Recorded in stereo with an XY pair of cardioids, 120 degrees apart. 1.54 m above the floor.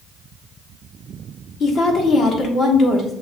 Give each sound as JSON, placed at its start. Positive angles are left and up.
{"t": 1.6, "sound": "a woman speaking", "azimuth_deg": 55, "distance_m": 1.4}